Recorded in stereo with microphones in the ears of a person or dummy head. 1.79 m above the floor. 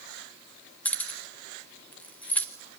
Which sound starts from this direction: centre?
Keys jangling, at 0.8 s.